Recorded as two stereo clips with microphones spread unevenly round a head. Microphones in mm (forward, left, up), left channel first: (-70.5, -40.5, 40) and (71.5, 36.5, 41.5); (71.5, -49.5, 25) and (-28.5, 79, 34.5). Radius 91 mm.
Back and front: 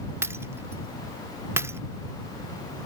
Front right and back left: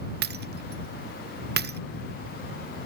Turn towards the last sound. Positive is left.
turn(degrees=105)